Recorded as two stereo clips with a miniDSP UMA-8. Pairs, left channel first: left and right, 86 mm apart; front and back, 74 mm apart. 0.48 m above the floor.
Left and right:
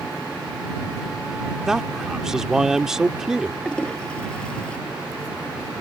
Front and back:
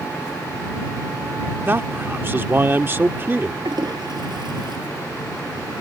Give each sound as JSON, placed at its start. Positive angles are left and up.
{"t": 1.6, "sound": "a man speaking", "azimuth_deg": -170}
{"t": 3.6, "sound": "a toilet flushing", "azimuth_deg": 170}